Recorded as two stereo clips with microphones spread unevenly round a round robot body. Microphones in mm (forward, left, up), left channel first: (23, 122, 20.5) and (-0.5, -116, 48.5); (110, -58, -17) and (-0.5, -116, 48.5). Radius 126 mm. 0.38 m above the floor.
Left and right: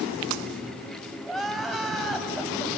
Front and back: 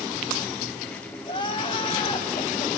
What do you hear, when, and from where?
1.3 s crying: 5° right, 1.8 m